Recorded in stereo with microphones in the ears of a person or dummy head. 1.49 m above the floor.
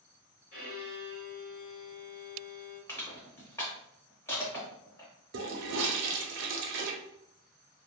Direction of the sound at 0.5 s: 60° left (ahead or behind).